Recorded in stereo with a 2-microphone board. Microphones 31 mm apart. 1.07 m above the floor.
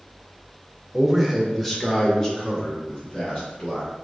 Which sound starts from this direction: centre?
A man speaking, at 0.9 s.